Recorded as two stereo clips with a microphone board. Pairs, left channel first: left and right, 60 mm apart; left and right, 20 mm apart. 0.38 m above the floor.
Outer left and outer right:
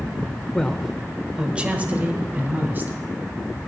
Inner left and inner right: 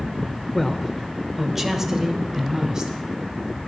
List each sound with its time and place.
0.5 s a man speaking: 10° left (ahead or behind), 0.8 m; by 3.0 s 35° right (ahead or behind), 2.0 m